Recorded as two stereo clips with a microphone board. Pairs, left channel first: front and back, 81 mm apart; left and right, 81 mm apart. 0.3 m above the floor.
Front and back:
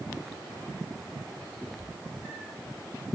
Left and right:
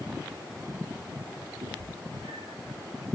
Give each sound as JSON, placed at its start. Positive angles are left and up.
{"t": 1.6, "sound": "a cat meowing", "azimuth_deg": -90, "distance_m": 6.0}